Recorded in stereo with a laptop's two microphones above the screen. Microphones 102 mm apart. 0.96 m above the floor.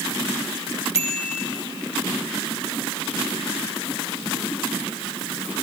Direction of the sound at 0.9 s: 75° left (ahead or behind).